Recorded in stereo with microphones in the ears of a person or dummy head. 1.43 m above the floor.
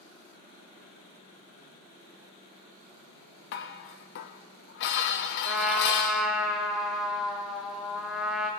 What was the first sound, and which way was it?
Dishes clattering, 55° left (ahead or behind).